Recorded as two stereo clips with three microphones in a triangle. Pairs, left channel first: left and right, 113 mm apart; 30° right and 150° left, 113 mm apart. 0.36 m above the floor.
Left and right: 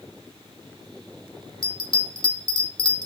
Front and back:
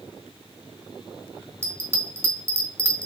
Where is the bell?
95° left, 1.4 m.